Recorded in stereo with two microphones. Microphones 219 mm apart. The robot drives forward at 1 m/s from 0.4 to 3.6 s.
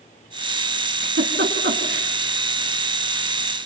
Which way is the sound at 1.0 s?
60° right (ahead or behind).